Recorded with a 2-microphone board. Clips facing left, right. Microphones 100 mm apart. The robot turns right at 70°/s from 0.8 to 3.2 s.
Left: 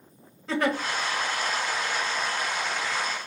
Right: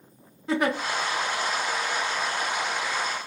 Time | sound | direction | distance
0.5 | a giggle | 15° right (ahead or behind) | 0.9 m